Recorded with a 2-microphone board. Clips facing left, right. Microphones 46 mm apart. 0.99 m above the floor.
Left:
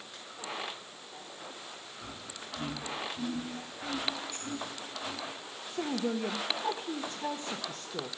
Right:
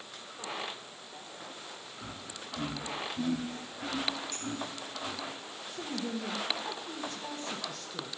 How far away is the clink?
About 9.5 m.